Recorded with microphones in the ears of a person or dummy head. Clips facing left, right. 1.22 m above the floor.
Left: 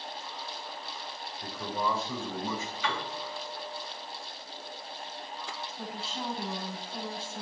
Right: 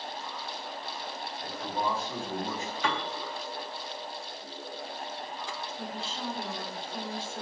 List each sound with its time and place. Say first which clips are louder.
1.4 s a man speaking: even; 70° left (ahead or behind), 4.5 m; by 2.7 s 65° left (ahead or behind), 6 m
2.8 s a piano: right 3 dB; 40° right (ahead or behind), 3 m
5.8 s a woman speaking: left 1 dB; 30° left (ahead or behind), 8 m